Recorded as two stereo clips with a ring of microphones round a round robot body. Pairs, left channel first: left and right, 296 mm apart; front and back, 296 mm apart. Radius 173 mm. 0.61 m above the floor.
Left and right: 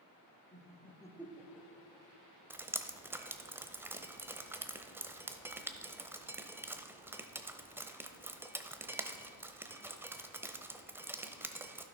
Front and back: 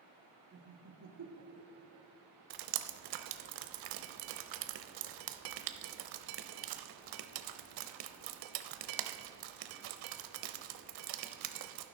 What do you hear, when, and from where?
0.5 s laughter: 140° left, 1.4 m; by 2.1 s 170° right, 2.5 m
2.5 s dripping: 170° right, 0.8 m